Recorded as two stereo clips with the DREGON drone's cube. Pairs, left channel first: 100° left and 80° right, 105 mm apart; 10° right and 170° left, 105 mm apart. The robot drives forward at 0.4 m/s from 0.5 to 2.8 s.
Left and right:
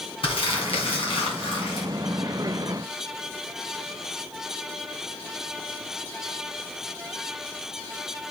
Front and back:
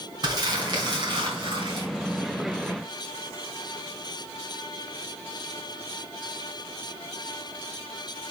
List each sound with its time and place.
0.2 s crumpling: 125° left, 2.5 m; by 1.9 s 135° left, 3 m